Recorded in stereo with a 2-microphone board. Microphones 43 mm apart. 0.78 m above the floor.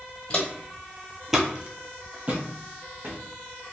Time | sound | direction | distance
0.3 | footsteps | 20° left (ahead or behind) | 0.9 m